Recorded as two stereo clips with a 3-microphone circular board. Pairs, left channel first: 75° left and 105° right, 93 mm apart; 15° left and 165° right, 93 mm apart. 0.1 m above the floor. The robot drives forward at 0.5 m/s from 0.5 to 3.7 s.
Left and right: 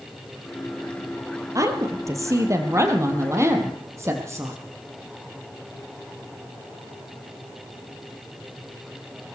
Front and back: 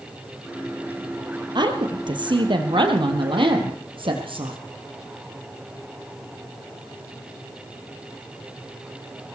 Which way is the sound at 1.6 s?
150° right.